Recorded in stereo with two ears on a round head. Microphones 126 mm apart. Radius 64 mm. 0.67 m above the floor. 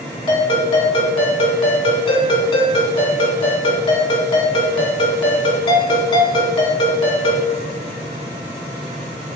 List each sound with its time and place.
0.3 s a ringtone: 40° left (ahead or behind), 2.5 m